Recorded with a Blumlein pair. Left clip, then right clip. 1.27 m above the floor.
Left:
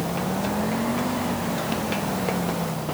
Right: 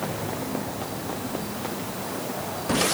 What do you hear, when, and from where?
Only background noise.